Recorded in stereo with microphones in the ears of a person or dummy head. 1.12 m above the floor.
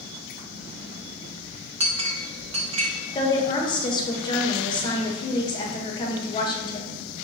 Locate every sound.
1.8 s a clink: 35° right (ahead or behind), 0.6 m
3.1 s a woman speaking: 25° left (ahead or behind), 0.8 m